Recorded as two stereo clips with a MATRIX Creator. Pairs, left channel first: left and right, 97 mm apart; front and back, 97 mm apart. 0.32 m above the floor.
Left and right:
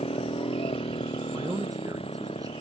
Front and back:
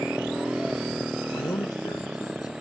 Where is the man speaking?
45° right.